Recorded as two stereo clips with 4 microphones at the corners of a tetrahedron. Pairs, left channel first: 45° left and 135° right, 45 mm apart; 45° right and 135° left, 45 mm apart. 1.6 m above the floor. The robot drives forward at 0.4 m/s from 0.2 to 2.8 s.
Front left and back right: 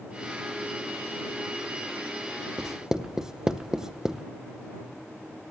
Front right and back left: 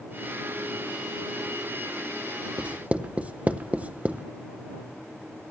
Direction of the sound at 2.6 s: 155° left.